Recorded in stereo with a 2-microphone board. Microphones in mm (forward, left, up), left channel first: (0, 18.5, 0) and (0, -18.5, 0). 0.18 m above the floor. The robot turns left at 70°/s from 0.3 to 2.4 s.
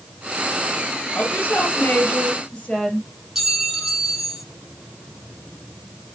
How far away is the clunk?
I don't hear a clunk.